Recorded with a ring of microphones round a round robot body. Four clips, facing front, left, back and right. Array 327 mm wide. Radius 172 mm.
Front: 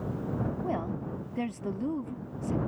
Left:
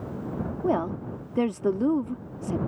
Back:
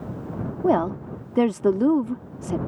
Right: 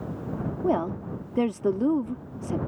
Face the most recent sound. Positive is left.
turn(degrees=180)